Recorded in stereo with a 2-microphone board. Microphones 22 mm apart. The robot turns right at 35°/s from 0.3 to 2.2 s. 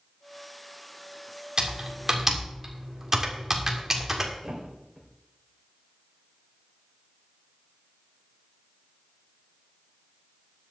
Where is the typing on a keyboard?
45° right (ahead or behind), 2 m; by 4.3 s 25° right (ahead or behind), 2 m.